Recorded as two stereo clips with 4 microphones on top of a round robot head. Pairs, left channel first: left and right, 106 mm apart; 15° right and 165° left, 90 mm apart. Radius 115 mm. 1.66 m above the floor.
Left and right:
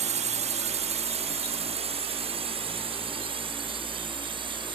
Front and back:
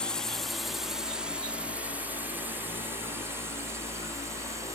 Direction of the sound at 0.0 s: 95° right.